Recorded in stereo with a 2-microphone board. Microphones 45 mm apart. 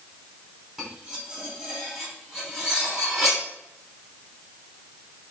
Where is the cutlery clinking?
15° right (ahead or behind), 4 m.